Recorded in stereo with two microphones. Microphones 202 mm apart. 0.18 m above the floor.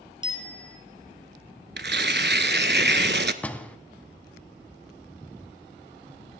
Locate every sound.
0.2 s a bicycle bell: 25° right (ahead or behind), 2.5 m
1.8 s tearing paper: 60° right (ahead or behind), 0.6 m
3.4 s a door slam: 5° left (ahead or behind), 0.7 m